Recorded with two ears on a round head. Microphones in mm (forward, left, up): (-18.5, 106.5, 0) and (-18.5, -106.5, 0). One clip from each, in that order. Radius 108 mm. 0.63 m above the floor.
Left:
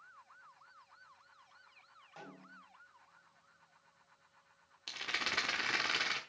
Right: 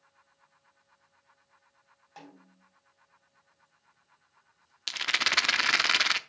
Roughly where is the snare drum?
Right.